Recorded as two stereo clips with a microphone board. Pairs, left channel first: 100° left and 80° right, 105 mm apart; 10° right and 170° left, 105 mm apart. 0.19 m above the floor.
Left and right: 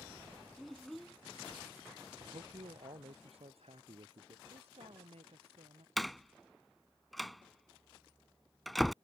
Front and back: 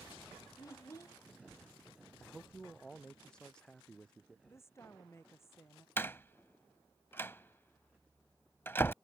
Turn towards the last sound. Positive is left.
turn(degrees=10)